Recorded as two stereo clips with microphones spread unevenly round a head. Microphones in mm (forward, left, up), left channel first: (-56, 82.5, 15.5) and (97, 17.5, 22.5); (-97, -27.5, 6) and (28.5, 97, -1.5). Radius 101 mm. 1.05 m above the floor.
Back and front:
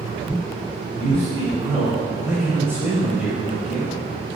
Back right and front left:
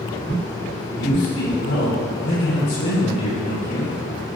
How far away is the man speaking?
About 3.5 m.